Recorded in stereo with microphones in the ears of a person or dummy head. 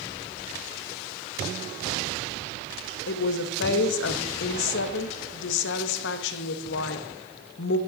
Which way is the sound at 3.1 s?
85° left.